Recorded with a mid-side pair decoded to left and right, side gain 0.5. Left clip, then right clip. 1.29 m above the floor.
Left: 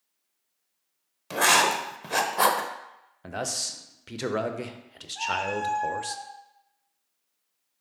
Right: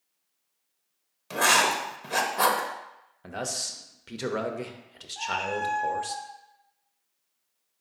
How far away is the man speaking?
About 0.5 m.